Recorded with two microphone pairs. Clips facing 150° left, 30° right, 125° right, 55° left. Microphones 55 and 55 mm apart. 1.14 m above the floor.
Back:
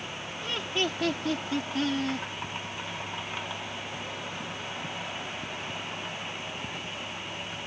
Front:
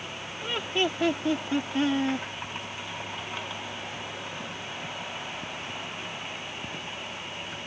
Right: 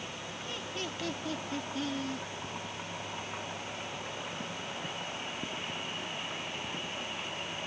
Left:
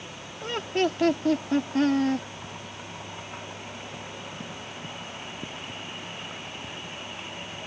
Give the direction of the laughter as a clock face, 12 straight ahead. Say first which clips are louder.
Front 3 dB, left 15 dB; 11 o'clock.